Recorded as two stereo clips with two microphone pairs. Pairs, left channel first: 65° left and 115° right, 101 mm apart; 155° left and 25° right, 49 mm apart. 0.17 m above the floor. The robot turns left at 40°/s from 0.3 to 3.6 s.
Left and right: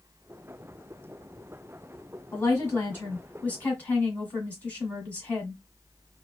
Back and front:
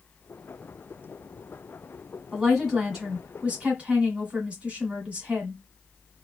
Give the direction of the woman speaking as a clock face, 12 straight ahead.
10 o'clock.